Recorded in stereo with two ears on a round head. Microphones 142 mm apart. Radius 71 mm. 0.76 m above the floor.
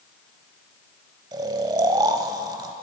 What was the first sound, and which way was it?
Snoring, 25° right (ahead or behind).